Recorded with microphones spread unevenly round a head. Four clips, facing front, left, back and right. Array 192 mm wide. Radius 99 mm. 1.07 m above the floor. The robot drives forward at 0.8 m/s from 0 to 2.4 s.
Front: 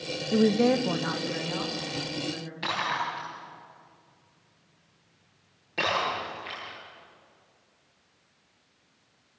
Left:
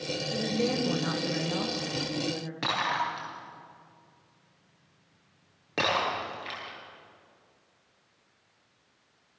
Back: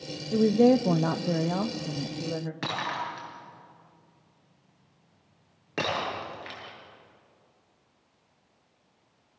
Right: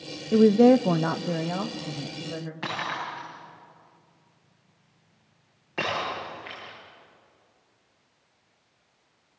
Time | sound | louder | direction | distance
0.3 | a woman speaking | right 14 dB, back 2 dB | 60° right | 0.6 m
2.6 | breaking glass | left 4 dB, front 6 dB | 135° left | 9 m